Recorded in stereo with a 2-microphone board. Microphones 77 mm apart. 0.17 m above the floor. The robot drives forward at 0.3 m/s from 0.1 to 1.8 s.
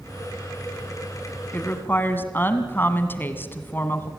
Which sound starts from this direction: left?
A woman speaking, at 1.5 s.